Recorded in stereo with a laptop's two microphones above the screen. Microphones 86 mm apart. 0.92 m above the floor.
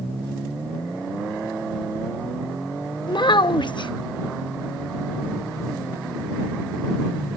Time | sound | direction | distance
3.1 | a child speaking | 65° left (ahead or behind) | ?